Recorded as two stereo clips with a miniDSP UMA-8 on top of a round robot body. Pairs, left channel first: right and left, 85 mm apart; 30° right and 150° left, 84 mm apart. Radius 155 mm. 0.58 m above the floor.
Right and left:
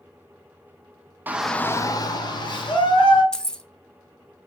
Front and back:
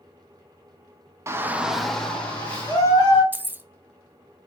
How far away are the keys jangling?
About 0.6 m.